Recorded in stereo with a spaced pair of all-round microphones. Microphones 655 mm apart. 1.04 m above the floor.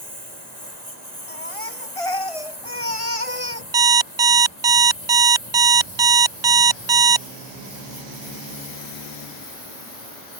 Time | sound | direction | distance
0.0 | a lawn mower | 85° right | ?
1.3 | a baby crying | 50° left (ahead or behind) | ?
3.7 | an alarm clock | 45° right (ahead or behind) | ?